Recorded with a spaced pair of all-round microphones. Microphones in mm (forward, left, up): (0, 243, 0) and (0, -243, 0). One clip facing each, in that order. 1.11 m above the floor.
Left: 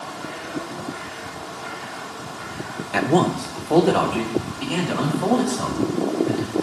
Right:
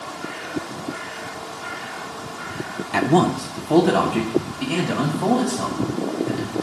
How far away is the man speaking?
About 0.6 m.